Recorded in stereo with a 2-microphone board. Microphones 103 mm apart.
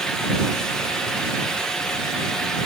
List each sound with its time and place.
Only background noise.